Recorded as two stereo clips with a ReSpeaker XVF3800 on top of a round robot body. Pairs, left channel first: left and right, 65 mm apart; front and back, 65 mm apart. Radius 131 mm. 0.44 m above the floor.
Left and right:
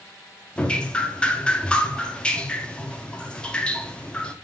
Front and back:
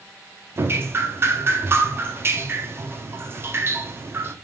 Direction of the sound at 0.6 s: 155° left.